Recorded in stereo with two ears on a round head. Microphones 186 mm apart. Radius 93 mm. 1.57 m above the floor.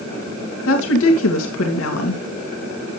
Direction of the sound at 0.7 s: 75° left (ahead or behind).